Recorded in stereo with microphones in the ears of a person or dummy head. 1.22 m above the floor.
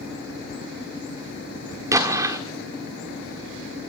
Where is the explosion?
15° right (ahead or behind), 1.5 m.